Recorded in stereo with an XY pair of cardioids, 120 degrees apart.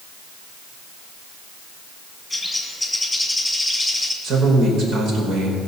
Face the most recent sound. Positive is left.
turn(degrees=-55)